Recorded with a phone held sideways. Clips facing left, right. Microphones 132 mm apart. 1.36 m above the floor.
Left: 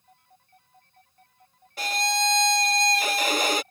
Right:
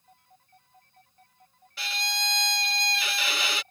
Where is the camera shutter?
I don't hear a camera shutter.